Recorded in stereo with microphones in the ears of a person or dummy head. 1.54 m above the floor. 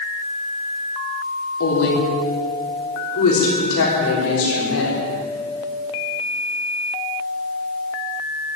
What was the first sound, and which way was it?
A woman speaking, 80° left.